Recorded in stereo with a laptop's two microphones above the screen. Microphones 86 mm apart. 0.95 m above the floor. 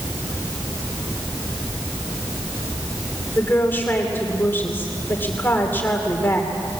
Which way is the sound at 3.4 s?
25° left (ahead or behind).